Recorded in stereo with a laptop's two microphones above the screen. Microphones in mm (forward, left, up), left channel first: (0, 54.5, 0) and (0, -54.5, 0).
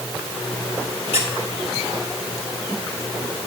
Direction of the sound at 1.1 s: 70° left (ahead or behind).